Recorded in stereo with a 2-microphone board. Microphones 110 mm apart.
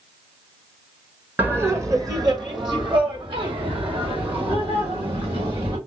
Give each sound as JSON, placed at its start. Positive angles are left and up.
{"t": 1.4, "sound": "laughter", "side_deg": -15, "distance_m": 0.6}